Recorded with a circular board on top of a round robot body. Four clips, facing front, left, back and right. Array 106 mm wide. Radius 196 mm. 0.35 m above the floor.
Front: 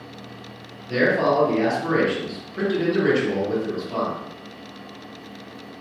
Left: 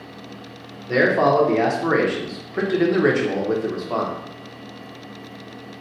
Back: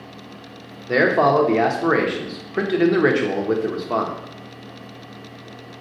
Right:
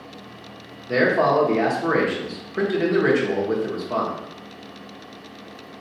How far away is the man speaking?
About 1.1 m.